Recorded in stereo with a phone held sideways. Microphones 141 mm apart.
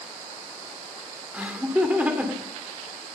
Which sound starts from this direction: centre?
Laughter, at 1.3 s.